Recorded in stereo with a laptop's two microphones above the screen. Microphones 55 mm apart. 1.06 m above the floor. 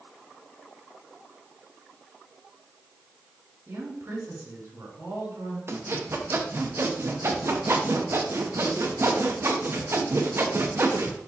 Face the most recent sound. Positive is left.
turn(degrees=-50)  # may be behind; listen again after turning